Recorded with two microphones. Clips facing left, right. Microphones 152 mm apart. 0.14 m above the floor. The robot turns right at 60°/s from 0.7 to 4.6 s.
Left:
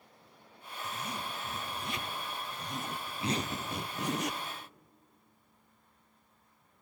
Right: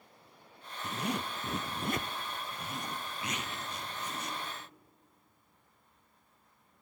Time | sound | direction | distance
0.8 | a zipper | 115° right | 0.6 m